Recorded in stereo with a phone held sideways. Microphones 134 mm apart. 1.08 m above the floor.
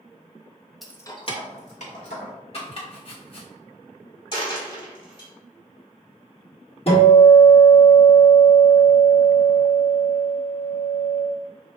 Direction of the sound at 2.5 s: 50° left (ahead or behind).